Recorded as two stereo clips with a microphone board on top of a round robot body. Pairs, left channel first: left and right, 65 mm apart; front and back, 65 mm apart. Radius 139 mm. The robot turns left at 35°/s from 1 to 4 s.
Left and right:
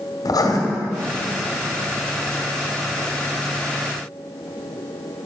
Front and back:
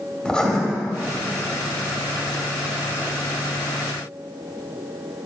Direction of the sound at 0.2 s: 80° left.